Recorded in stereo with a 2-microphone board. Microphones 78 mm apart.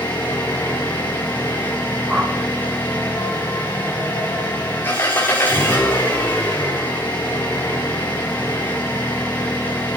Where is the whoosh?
15° right (ahead or behind), 2.5 m.